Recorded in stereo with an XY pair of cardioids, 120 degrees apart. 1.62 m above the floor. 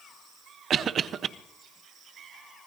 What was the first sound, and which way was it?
A cough, 50° right.